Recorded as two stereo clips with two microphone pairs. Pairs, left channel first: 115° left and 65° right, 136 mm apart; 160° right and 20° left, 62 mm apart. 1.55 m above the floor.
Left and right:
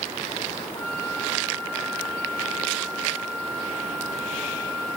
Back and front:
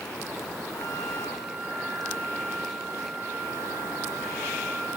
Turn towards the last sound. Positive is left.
turn(degrees=175)